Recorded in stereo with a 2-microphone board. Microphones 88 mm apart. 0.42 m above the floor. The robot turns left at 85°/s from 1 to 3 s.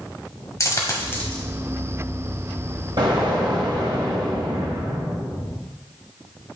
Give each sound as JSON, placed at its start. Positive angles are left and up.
{"t": 0.6, "sound": "a dropped coin", "side_deg": 35, "distance_m": 1.3}
{"t": 3.0, "sound": "an explosion", "side_deg": -60, "distance_m": 1.8}